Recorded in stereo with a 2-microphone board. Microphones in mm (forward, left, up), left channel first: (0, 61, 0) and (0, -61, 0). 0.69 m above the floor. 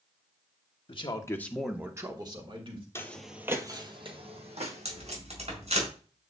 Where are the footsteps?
20° left (ahead or behind), 1.0 m; by 5.2 s 65° right (ahead or behind), 3 m.